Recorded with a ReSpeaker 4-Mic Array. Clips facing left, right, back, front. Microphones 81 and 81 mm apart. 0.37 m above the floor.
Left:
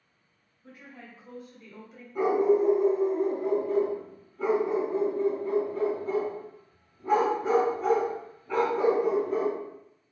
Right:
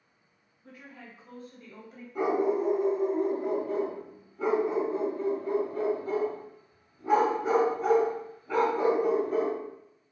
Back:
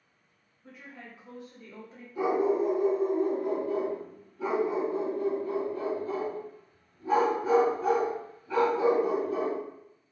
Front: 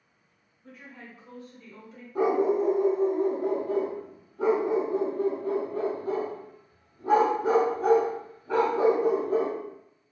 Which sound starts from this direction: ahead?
A dog barking, at 2.1 s.